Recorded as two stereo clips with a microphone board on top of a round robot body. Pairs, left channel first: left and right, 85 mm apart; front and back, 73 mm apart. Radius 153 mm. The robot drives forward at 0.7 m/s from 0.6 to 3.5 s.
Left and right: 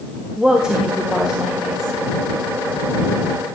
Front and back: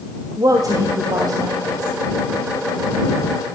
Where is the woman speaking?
170° right, 1.9 m; by 2.0 s 175° right, 3 m.